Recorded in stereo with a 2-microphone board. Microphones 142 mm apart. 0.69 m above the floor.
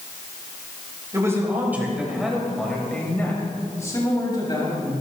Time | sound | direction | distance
1.1 | a man speaking | 20° right (ahead or behind) | 3 m